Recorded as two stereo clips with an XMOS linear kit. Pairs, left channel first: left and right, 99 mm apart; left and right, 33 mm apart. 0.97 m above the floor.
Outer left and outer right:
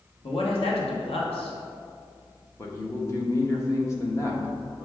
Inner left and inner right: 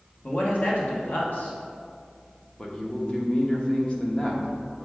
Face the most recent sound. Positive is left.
turn(degrees=30)  # may be behind; listen again after turning